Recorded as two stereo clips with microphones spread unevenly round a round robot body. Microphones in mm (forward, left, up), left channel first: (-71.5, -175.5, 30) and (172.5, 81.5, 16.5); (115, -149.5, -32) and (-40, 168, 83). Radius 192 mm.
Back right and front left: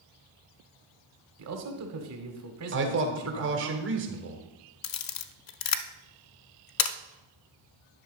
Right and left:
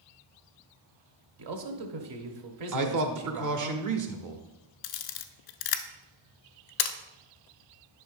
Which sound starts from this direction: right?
A camera shutter, at 4.8 s.